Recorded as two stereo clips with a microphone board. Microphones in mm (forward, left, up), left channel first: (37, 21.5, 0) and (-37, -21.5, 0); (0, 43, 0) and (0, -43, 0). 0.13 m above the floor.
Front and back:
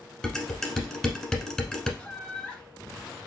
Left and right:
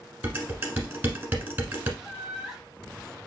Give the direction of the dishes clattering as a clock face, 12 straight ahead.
1 o'clock.